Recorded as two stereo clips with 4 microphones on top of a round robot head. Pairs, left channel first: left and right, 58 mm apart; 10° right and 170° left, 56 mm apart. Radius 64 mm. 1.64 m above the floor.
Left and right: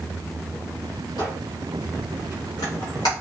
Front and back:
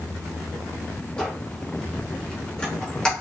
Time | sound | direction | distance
1.2 | a squeak | 65° left | 1.0 m